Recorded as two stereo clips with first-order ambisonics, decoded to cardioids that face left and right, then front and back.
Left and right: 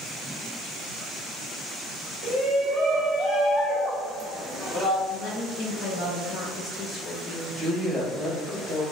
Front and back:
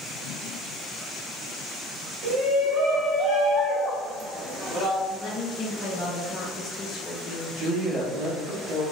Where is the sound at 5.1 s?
50° left, 0.7 m.